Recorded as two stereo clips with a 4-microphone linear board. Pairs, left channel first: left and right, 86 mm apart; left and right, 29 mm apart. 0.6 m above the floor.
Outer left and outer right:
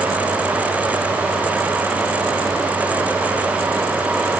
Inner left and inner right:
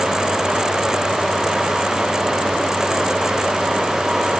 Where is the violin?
I don't hear a violin.